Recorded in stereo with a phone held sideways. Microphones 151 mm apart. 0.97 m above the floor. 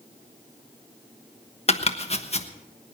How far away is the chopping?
About 1.1 m.